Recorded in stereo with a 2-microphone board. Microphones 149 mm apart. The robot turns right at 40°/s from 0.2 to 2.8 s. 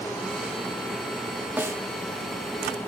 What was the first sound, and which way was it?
A snare drum, 15° right (ahead or behind).